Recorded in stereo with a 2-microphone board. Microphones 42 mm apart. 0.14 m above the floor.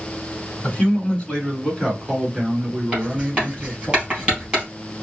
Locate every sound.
0.6 s a man speaking: 30° left (ahead or behind), 1.8 m; by 3.9 s 20° right (ahead or behind), 2.5 m
2.9 s writing: 20° right (ahead or behind), 3 m